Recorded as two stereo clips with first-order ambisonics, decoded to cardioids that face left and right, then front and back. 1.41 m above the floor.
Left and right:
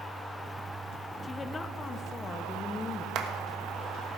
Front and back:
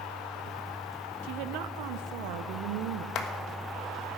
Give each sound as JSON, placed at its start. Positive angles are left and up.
{"t": 1.2, "sound": "a woman speaking", "azimuth_deg": 165, "distance_m": 0.6}
{"t": 3.1, "sound": "a clap", "azimuth_deg": -40, "distance_m": 1.4}